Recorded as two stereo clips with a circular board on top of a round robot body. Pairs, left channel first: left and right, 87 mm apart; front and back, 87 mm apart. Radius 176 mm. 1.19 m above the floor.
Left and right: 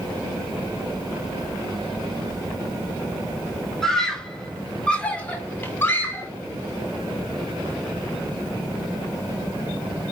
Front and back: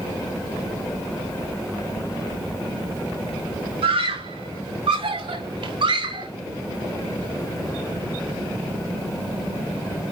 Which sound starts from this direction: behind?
A scream, at 3.8 s.